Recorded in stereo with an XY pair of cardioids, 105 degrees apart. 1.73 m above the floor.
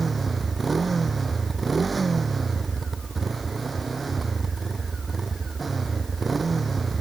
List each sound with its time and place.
0.0 s a motorcycle: 30° right